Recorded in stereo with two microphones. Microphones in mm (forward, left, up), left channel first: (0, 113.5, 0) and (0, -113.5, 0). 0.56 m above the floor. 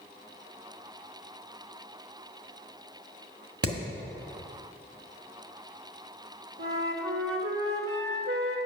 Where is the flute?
70° right (ahead or behind), 1.2 m.